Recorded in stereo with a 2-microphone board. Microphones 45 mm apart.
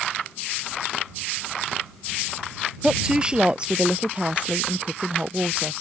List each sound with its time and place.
2.8 s a woman speaking: 20° right (ahead or behind); by 5.7 s 30° right (ahead or behind)